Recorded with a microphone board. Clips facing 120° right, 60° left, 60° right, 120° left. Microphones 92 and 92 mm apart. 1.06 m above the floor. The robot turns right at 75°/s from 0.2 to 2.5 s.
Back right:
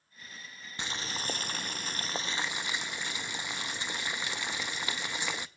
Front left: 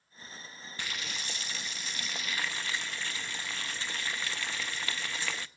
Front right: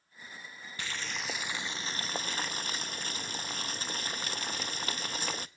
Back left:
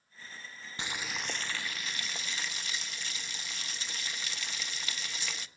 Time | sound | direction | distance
0.8 | boiling | straight behind | 0.6 m